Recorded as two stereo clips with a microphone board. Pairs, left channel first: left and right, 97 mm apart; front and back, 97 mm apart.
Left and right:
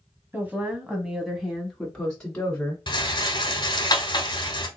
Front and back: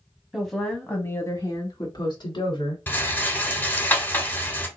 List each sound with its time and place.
0.3 s a woman speaking: 105° right, 1.1 m; by 2.8 s 15° left, 1.9 m
2.9 s a rattle: 65° left, 1.0 m